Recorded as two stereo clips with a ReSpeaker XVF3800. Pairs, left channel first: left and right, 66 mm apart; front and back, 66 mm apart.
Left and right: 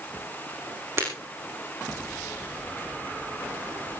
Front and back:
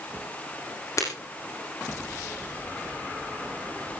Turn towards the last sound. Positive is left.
turn(degrees=-35)